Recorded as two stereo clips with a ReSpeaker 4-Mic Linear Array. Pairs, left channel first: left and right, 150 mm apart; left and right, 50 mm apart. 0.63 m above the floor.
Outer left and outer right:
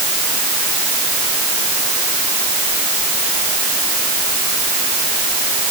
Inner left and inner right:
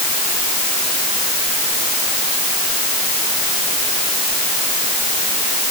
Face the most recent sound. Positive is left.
No sound to turn to.